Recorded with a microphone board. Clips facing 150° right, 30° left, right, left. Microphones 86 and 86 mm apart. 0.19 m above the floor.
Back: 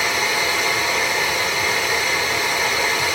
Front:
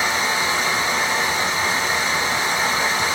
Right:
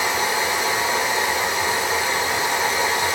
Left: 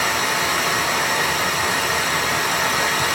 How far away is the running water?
About 1.9 m.